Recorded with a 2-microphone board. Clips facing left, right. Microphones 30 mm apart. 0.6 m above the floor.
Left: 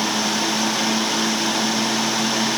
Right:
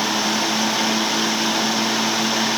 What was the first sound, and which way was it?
Only background noise.